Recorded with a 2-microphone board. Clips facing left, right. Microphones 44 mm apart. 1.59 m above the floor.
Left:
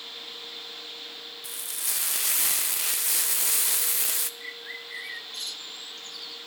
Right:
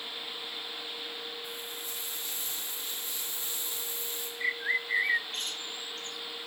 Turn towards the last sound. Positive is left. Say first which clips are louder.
# right 9 dB
turn(degrees=-40)  # may be behind; listen again after turning